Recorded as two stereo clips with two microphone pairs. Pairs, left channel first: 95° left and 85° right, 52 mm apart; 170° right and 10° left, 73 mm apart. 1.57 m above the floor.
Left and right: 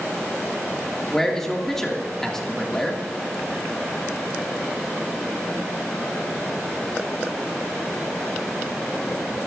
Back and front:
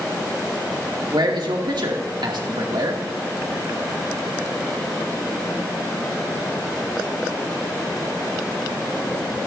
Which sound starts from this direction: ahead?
A man speaking, at 1.1 s.